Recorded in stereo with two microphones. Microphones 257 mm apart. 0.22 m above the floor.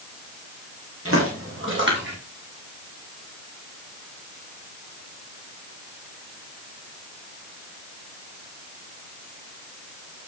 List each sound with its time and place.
1.1 s footsteps: 60° right (ahead or behind), 6.5 m; by 2.1 s 45° right (ahead or behind), 6 m